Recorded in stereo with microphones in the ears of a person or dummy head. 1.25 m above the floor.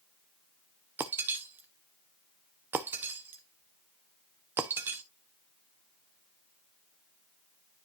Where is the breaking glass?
10° right (ahead or behind), 0.7 m.